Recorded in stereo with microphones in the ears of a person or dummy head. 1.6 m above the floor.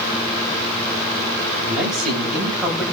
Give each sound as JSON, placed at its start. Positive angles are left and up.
{"t": 1.6, "sound": "a man speaking", "side_deg": -5, "distance_m": 9.5}